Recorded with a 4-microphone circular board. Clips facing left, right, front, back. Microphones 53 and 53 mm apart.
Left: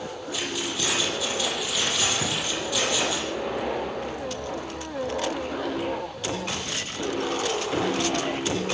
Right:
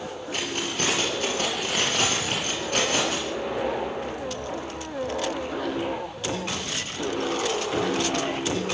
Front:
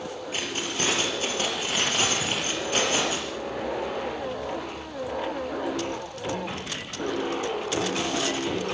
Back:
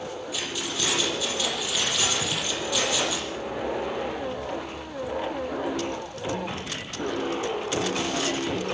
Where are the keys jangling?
50° right, 6.5 m.